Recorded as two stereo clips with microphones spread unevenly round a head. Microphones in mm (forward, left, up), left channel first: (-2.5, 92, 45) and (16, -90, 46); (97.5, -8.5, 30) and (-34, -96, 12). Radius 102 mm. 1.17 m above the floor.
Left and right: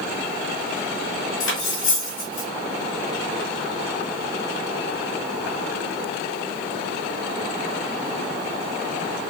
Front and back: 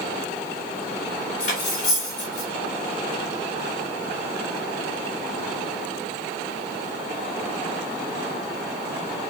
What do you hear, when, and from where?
1.4 s cutlery clinking: 90° left, 3.5 m